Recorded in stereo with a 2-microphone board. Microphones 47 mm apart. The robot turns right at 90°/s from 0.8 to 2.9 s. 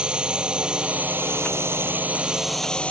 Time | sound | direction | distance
0.0 | a drone | 155° right | ?